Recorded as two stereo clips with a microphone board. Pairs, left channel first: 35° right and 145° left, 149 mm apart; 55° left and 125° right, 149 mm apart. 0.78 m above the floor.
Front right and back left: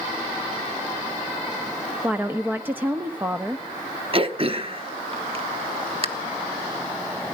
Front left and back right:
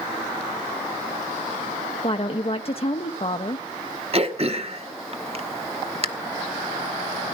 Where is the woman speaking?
75° left, 0.6 m.